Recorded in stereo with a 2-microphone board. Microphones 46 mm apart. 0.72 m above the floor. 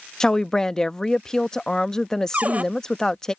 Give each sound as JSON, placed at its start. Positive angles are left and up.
{"t": 0.2, "sound": "a woman speaking", "side_deg": 15}
{"t": 2.3, "sound": "a cupboard door", "side_deg": -35}